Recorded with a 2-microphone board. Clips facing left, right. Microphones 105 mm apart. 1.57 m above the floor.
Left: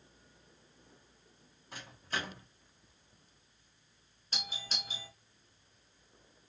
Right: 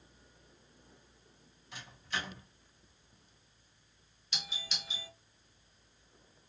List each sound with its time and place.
1.7 s a microwave: 45° left (ahead or behind), 1.4 m
4.3 s a doorbell: 40° left (ahead or behind), 1.1 m